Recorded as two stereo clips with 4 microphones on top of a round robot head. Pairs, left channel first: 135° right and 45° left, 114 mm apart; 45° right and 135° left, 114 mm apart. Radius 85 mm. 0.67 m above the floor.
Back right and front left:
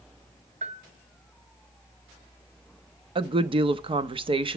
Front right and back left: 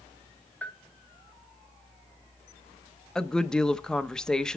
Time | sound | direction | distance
0.6 | a bell | 30° left | 1.5 m
3.1 | a woman speaking | 35° left | 0.8 m